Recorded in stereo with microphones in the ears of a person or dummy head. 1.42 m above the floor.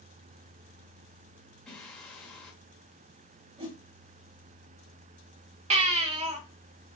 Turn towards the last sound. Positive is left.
turn(degrees=-35)  # may be behind; listen again after turning